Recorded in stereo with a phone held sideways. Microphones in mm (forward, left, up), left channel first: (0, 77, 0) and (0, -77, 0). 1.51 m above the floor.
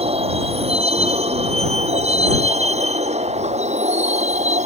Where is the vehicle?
40° right (ahead or behind); by 4.7 s 45° right (ahead or behind).